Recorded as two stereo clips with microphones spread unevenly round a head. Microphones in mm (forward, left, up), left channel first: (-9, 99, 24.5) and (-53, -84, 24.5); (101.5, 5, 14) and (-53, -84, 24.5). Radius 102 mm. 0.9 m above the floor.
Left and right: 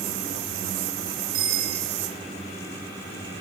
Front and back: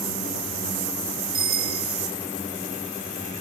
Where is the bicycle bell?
90° right, 10 m.